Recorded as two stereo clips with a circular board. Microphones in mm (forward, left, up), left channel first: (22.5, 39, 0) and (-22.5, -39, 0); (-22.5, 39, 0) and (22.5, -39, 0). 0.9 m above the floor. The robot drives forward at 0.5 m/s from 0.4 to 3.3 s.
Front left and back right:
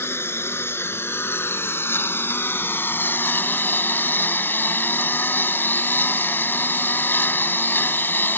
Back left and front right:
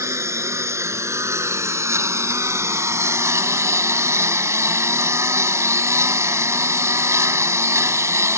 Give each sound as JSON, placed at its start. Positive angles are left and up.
{"t": 0.0, "sound": "a lawn mower", "azimuth_deg": -5}